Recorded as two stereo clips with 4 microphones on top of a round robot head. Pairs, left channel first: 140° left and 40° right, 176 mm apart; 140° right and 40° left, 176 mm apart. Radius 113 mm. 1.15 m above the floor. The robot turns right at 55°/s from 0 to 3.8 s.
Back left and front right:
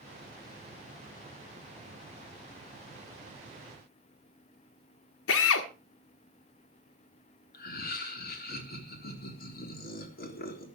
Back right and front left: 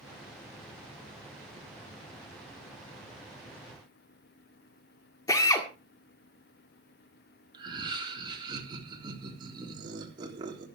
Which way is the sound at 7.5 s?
105° left.